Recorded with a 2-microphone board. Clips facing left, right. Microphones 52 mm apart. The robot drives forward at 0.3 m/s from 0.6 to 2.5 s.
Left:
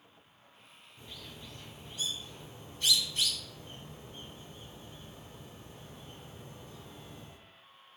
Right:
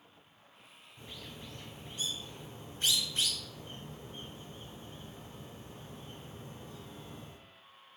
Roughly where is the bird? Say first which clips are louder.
Right 1 dB; right.